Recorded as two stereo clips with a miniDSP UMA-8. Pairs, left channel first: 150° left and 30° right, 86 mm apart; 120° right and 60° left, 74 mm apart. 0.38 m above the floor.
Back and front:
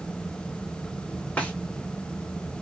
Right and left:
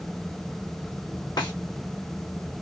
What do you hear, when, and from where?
1.4 s a snare drum: 135° right, 1.4 m